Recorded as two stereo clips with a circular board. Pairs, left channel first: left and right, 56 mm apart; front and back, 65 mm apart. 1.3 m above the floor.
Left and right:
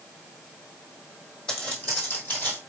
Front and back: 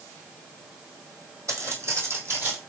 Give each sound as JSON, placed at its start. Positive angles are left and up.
{"t": 1.5, "sound": "footsteps", "azimuth_deg": 160, "distance_m": 2.0}